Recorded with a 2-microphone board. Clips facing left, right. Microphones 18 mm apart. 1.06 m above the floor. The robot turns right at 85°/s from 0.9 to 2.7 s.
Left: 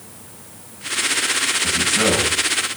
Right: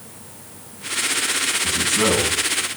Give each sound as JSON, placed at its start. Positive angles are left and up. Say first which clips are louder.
{"t": 1.6, "sound": "a man speaking", "louder": "left 1 dB", "azimuth_deg": 100, "distance_m": 6.5}